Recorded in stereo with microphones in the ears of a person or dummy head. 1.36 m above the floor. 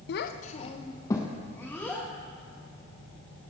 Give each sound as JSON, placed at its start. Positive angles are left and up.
{"t": 0.1, "sound": "a child speaking", "side_deg": 65, "distance_m": 0.6}